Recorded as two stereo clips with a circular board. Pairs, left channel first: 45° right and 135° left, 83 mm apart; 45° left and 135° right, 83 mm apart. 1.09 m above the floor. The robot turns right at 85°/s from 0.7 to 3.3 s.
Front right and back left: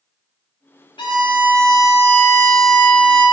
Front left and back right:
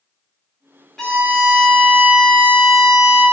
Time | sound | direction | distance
1.0 | a violin | 40° right | 1.3 m